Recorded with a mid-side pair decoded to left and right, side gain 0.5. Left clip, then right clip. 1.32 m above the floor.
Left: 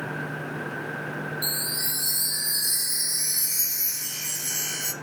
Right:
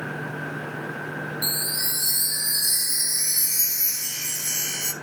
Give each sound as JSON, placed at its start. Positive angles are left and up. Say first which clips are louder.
{"t": 1.4, "sound": "a chime", "louder": "right 3 dB", "azimuth_deg": -15, "distance_m": 1.7}